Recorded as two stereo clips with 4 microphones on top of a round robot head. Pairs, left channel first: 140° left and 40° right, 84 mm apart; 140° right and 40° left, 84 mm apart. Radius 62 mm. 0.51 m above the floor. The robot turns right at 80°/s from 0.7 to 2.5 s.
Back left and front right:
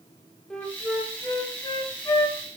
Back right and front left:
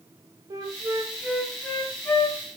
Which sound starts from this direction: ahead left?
A flute, at 0.5 s.